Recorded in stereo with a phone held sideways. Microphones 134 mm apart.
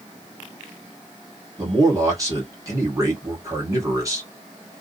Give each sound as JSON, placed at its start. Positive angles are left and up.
{"t": 1.6, "sound": "a man speaking", "side_deg": -25, "distance_m": 1.5}